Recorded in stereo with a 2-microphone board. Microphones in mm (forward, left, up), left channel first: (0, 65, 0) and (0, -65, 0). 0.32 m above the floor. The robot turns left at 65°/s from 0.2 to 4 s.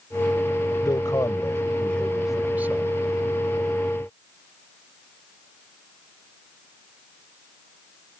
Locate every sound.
0.8 s a man speaking: 90° left; by 2.9 s 45° right